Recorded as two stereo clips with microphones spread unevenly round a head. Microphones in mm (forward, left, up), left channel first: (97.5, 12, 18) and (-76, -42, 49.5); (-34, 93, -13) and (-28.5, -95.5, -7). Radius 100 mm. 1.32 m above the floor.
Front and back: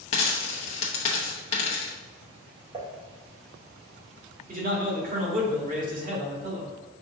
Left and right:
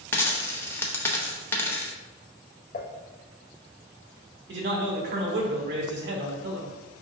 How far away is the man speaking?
About 1.6 m.